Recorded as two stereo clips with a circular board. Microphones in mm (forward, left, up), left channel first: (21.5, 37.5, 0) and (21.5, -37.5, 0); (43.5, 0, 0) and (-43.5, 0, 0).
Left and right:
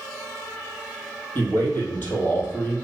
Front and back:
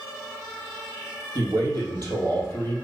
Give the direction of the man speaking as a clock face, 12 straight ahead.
7 o'clock.